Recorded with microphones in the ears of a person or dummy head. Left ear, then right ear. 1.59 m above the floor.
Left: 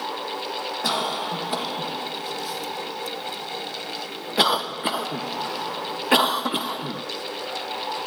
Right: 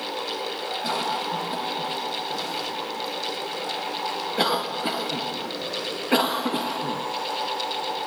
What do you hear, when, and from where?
0.8 s a cough: 45° left (ahead or behind), 0.8 m